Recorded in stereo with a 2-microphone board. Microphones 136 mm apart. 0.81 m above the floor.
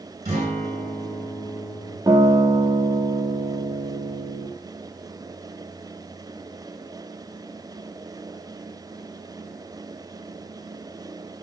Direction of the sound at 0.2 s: 45° right (ahead or behind).